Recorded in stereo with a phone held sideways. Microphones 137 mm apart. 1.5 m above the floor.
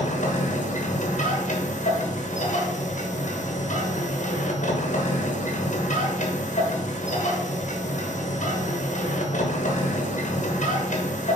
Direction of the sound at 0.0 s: 60° left (ahead or behind).